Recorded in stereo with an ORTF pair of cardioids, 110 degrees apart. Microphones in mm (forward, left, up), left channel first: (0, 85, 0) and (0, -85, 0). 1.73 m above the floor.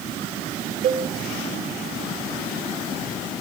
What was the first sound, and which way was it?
A cowbell, 65° right.